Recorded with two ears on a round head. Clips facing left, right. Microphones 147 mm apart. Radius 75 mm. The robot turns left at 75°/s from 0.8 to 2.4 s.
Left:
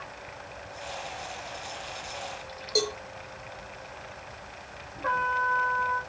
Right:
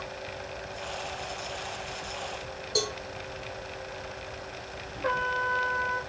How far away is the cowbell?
About 1.0 m.